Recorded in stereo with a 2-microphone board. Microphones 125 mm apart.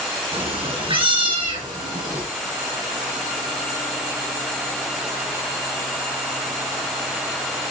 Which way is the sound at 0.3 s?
45° right (ahead or behind).